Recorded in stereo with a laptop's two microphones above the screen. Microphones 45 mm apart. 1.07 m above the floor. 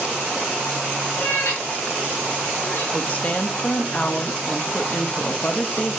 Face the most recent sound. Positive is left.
turn(degrees=35)  # may be behind; listen again after turning